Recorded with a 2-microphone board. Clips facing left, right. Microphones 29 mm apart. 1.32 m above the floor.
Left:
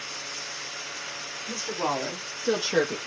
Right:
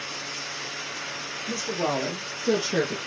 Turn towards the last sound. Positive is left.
turn(degrees=30)  # may be behind; listen again after turning